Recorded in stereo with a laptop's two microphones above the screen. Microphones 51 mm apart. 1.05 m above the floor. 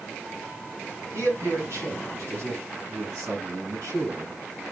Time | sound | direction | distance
1.1 | a man speaking | 70° right (ahead or behind) | 7 m